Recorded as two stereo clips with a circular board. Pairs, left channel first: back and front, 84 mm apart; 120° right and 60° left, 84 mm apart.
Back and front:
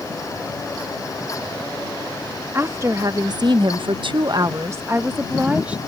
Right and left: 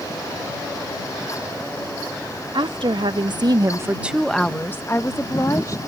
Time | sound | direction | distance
2.5 | a woman speaking | 55° left | ?